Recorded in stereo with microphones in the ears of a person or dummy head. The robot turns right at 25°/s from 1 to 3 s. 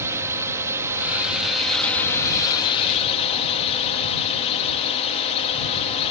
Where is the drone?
15° right; by 6.1 s 35° left.